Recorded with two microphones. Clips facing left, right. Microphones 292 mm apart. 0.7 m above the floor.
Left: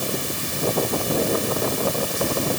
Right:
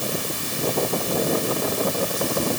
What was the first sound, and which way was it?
Only background noise.